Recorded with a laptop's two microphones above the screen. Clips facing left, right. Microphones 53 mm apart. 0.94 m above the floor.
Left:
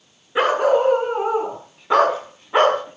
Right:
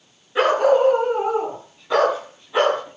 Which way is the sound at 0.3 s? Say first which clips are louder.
Right 1 dB; 20° left (ahead or behind).